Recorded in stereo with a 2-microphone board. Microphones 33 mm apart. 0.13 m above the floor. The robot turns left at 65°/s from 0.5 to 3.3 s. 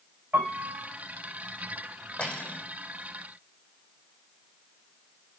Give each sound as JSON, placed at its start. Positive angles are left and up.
{"t": 0.3, "sound": "a piano", "side_deg": -65, "distance_m": 4.5}
{"t": 2.2, "sound": "cutlery clinking", "azimuth_deg": 135, "distance_m": 3.5}